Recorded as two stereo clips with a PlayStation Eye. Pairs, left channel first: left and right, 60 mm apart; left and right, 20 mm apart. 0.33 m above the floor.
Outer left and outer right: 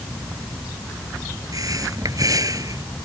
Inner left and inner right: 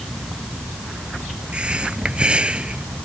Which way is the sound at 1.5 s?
80° right.